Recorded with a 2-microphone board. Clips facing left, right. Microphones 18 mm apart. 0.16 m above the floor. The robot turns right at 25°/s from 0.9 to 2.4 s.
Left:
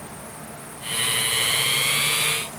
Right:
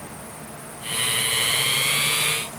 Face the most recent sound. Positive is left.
No sound to turn to.